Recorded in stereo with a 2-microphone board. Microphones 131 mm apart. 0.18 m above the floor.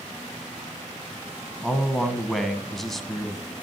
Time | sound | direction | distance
1.6 | a man speaking | centre (ahead or behind) | 1.4 m